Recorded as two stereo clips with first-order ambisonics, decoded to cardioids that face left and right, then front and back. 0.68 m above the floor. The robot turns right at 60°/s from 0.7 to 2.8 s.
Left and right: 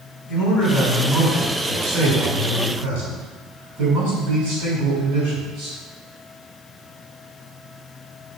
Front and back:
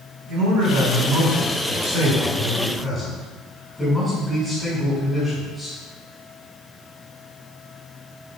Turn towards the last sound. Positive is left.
turn(degrees=-85)